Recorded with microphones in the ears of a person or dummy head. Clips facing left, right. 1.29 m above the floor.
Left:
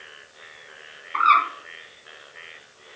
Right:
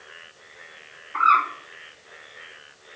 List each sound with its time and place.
1.1 s a bird: 45° left (ahead or behind), 1.0 m